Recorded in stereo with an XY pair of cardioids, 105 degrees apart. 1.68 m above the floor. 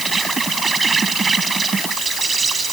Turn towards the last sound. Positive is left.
turn(degrees=-30)